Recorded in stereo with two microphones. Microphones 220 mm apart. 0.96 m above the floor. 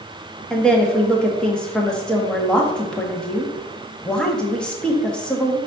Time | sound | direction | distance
0.5 | a woman speaking | 5° left (ahead or behind) | 1.4 m